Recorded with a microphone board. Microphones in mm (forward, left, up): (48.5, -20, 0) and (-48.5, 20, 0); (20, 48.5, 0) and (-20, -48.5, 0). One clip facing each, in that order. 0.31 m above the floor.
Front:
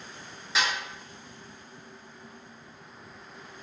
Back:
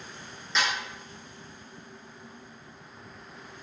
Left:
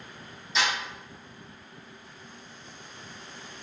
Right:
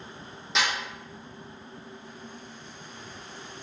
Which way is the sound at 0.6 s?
100° right.